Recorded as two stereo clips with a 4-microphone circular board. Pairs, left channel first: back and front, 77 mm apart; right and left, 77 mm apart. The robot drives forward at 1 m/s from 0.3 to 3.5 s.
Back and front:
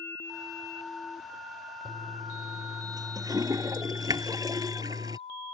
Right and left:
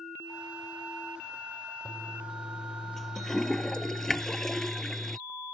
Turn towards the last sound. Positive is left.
turn(degrees=-5)